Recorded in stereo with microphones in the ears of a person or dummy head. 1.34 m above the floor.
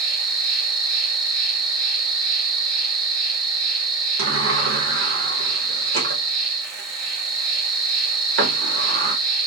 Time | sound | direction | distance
0.0 | an insect | 40° right (ahead or behind) | 1.1 m
4.2 | a sliding door | 65° right (ahead or behind) | 0.8 m